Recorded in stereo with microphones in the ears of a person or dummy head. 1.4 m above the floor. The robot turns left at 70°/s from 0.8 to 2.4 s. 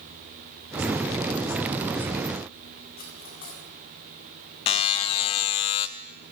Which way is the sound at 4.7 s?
25° left (ahead or behind).